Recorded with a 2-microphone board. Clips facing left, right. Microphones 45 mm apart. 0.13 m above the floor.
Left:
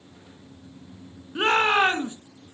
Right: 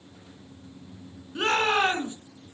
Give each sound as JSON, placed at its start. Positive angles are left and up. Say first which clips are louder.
{"t": 1.4, "sound": "a shout", "louder": "left 3 dB", "side_deg": 20, "distance_m": 1.7}